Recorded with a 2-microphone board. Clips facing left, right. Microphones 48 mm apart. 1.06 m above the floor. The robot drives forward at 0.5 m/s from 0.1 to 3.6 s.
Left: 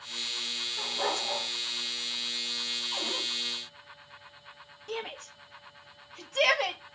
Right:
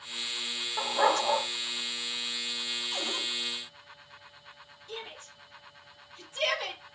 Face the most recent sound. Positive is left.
turn(degrees=65)  # may be behind; listen again after turning